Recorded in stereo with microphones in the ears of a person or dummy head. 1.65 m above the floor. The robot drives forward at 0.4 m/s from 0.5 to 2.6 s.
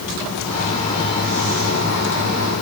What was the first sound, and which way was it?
Only background noise.